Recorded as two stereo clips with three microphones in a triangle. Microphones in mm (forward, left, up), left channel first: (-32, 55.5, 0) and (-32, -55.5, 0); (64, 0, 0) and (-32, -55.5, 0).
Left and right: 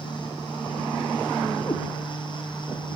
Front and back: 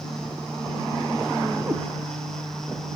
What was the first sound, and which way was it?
A cat meowing, 140° left.